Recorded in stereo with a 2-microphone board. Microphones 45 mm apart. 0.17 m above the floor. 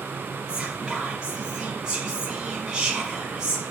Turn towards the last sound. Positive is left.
turn(degrees=-15)  # may be behind; listen again after turning